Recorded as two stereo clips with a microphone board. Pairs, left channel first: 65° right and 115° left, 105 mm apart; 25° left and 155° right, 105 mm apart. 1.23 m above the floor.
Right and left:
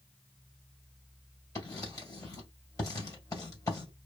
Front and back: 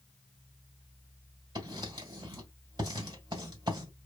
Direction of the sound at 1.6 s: 120° right.